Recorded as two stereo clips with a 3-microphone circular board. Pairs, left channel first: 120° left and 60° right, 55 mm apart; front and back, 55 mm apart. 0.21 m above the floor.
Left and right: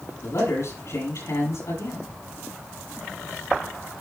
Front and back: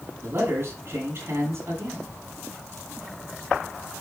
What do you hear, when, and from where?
0.2 s a man speaking: 140° left, 7 m